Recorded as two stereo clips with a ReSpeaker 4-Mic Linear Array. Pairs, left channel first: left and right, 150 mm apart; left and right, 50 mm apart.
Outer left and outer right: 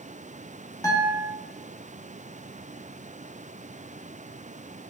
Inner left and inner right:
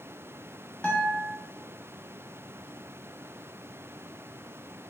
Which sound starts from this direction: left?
A guitar, at 0.8 s.